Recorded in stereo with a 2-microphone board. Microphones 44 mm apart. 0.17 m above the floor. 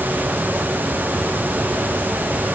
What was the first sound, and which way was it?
Only background noise.